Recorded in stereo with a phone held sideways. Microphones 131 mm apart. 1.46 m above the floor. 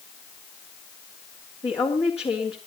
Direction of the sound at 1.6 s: 45° left (ahead or behind).